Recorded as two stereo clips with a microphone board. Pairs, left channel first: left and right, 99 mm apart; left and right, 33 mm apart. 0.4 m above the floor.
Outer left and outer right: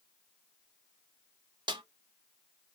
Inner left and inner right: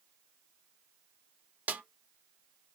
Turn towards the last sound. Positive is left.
turn(degrees=-50)  # may be behind; listen again after turning